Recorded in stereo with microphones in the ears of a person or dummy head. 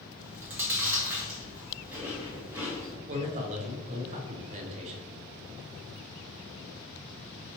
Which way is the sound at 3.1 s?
40° right (ahead or behind).